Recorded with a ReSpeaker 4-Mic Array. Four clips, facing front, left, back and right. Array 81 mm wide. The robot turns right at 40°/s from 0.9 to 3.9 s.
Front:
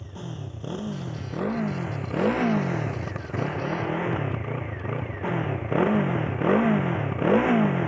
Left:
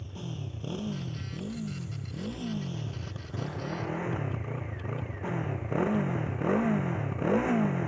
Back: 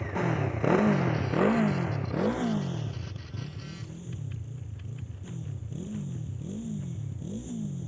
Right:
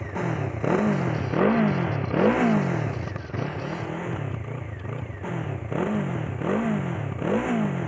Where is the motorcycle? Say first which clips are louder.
Right 13 dB, back 9 dB; 125° right; by 7.9 s 5° right.